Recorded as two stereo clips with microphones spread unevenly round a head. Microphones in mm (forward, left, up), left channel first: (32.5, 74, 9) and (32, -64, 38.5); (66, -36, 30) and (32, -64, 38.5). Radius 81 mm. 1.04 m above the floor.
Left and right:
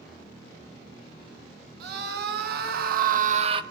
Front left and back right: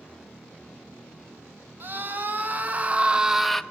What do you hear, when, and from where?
1.8 s a scream: 95° right, 1.4 m; by 3.6 s 30° right, 0.5 m